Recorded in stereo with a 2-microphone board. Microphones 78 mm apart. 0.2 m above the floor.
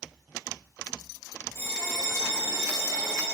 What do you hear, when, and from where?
1.6 s a bell: 35° left (ahead or behind), 8 m